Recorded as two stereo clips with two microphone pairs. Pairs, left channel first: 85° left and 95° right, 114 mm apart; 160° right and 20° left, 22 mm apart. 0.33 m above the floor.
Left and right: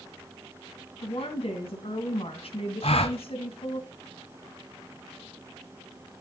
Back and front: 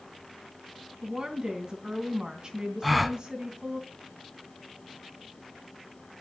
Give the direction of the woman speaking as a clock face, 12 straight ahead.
10 o'clock.